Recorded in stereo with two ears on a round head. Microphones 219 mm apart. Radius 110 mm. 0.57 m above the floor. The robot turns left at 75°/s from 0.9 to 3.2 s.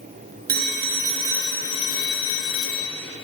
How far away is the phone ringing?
About 5.5 m.